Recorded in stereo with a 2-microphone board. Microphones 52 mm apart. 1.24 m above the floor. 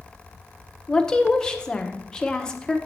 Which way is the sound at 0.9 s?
15° left (ahead or behind).